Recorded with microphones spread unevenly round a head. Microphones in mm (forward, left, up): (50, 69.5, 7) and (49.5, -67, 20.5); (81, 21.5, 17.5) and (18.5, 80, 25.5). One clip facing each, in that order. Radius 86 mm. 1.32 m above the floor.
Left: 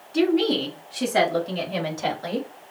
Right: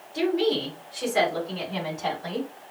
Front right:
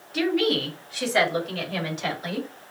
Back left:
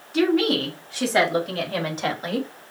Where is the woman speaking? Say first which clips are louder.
Left 3 dB, back left 3 dB; 85° left, 3.5 m; by 2.5 s 95° left, 2 m.